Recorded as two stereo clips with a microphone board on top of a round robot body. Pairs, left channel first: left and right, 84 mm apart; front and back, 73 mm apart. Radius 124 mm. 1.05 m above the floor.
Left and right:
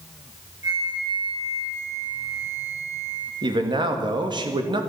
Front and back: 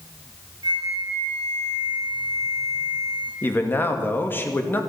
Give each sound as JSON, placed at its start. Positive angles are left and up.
{"t": 0.6, "sound": "a flute", "azimuth_deg": -150, "distance_m": 9.0}
{"t": 3.4, "sound": "a man speaking", "azimuth_deg": -60, "distance_m": 2.0}